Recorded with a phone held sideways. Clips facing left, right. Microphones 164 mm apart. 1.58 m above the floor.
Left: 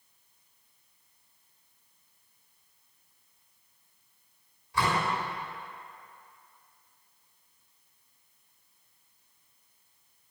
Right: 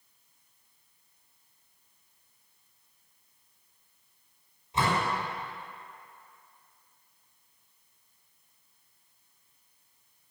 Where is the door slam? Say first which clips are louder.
Right 1 dB; 25° right (ahead or behind), 5 m.